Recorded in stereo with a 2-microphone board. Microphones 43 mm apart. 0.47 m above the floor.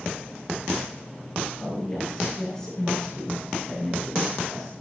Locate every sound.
1.6 s a woman speaking: 15° left (ahead or behind), 7.5 m; by 4.7 s centre (ahead or behind), 8 m